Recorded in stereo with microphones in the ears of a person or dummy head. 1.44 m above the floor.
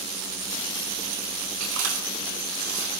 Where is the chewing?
85° right, 5 m.